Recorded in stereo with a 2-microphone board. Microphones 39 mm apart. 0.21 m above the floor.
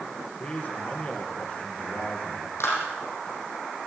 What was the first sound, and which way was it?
A man speaking, 40° left (ahead or behind).